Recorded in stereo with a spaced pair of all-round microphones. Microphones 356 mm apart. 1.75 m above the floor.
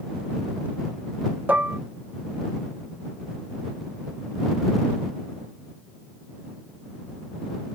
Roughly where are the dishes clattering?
Centre.